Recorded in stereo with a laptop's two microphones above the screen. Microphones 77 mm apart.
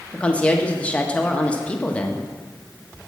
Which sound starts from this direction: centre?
A woman speaking, at 0.1 s.